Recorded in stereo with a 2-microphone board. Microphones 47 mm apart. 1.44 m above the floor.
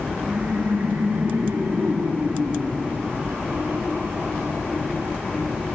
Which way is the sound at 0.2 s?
55° right (ahead or behind).